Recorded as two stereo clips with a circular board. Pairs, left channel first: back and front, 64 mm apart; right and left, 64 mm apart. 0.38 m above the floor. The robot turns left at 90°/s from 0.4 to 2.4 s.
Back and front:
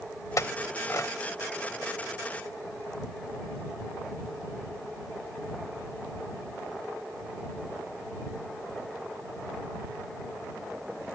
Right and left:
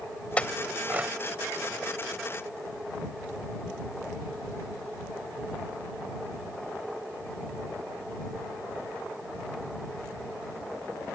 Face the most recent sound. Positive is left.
turn(degrees=25)